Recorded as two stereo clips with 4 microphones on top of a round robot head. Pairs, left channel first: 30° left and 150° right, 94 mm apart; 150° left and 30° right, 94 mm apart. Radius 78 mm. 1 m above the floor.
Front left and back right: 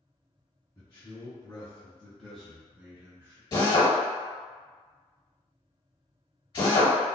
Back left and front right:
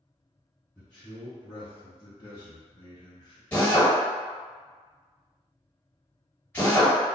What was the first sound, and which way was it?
A man speaking, 70° left.